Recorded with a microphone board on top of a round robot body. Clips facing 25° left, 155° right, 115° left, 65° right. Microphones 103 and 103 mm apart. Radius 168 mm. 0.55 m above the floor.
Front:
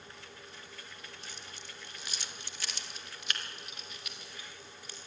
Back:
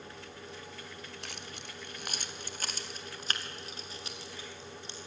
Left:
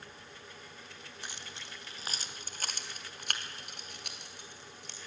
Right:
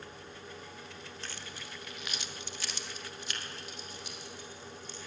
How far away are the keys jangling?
About 1.6 m.